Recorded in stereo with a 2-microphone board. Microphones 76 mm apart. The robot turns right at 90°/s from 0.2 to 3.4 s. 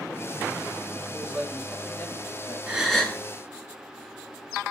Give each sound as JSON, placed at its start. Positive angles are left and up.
{"t": 1.1, "sound": "a man speaking", "azimuth_deg": -40, "distance_m": 1.6}
{"t": 2.7, "sound": "a gasp", "azimuth_deg": -20, "distance_m": 1.6}